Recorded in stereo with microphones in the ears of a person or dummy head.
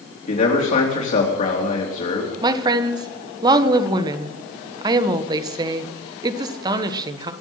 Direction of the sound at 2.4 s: 25° right (ahead or behind).